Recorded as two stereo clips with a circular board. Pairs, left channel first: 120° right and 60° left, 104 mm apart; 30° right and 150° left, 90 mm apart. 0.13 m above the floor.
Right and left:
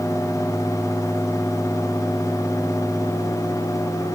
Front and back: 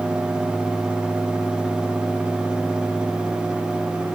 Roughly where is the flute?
I don't hear a flute.